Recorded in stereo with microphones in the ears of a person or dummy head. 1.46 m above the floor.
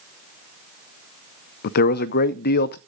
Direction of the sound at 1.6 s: 50° left (ahead or behind).